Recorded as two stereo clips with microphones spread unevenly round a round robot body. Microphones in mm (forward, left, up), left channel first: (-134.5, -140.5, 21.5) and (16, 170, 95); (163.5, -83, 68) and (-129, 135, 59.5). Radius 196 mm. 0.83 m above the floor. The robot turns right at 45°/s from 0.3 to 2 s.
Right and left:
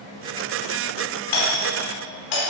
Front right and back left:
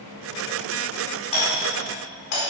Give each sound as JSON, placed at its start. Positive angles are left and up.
{"t": 1.3, "sound": "a doorbell", "azimuth_deg": -110, "distance_m": 4.5}